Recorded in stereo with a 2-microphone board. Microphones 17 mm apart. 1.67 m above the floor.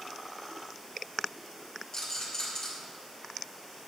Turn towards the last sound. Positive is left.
turn(degrees=45)  # may be behind; listen again after turning